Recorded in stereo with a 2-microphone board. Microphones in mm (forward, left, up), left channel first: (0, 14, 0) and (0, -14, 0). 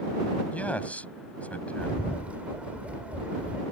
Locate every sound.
0.5 s a man speaking: 55° left (ahead or behind)
1.8 s a bird: 55° right (ahead or behind)